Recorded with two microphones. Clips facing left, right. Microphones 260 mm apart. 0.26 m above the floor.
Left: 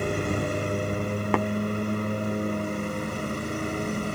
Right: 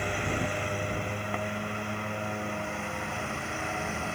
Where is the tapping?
85° left.